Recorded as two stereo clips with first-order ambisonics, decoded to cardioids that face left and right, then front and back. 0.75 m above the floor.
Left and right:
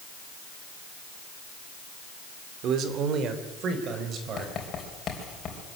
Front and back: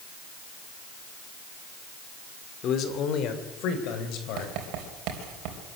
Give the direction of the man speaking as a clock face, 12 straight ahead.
2 o'clock.